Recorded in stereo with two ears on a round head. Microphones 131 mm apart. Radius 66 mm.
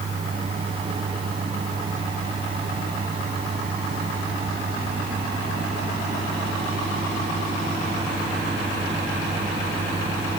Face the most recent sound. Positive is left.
No sound to turn to.